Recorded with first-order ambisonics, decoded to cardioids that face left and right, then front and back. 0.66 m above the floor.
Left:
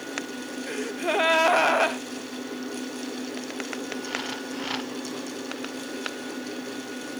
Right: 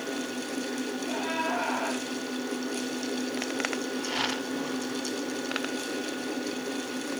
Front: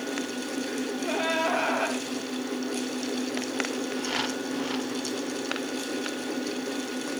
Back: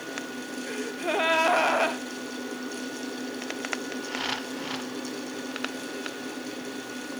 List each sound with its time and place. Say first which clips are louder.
0.7 s a gasp: left 5 dB, back 3 dB; 110° left, 0.8 m